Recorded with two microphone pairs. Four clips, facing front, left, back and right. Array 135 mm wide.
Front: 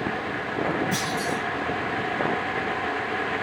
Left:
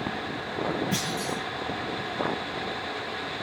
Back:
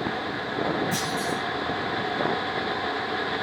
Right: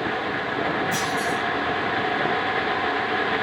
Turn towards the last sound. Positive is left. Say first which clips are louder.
# right 6 dB, front 1 dB
turn(degrees=80)